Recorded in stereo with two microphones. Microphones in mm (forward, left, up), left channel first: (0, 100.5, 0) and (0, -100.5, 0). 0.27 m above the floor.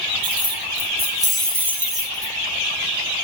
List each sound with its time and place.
0.2 s keys jangling: 25° right (ahead or behind), 3.5 m; by 2.3 s 20° left (ahead or behind), 4 m